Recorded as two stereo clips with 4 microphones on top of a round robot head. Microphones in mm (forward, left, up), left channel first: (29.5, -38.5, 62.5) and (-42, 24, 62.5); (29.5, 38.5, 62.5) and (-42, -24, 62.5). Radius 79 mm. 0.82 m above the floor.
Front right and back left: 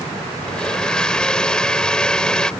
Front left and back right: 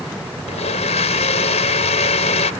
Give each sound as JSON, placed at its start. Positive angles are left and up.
{"t": 0.5, "sound": "a blender", "azimuth_deg": 40}